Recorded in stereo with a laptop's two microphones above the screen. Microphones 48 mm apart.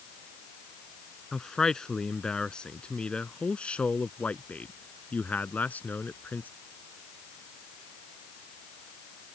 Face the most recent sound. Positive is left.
turn(degrees=35)  # may be behind; listen again after turning